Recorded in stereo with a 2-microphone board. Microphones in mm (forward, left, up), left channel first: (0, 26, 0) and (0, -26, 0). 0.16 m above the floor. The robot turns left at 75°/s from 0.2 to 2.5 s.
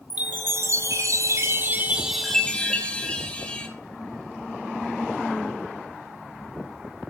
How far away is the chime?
About 3 m.